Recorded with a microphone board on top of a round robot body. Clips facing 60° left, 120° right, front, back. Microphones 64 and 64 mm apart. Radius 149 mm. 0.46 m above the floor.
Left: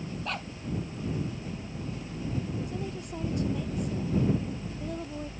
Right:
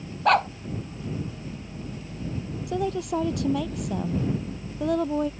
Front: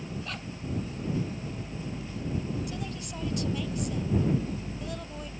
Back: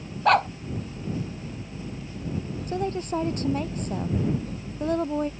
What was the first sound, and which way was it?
A dog barking, 150° right.